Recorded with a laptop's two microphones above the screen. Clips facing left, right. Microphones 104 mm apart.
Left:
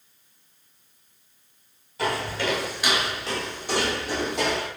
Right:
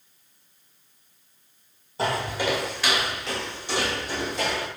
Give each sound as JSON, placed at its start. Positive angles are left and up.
{"t": 2.0, "sound": "footsteps", "side_deg": -35, "distance_m": 1.2}